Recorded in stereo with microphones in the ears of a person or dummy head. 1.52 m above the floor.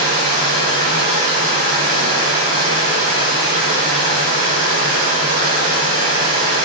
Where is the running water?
45° right (ahead or behind), 1.1 m.